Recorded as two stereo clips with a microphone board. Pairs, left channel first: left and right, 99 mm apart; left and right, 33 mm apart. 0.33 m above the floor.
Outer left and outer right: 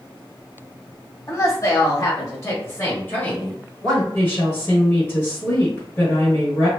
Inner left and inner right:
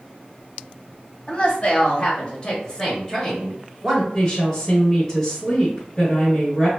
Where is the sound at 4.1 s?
20° left (ahead or behind), 1.0 m.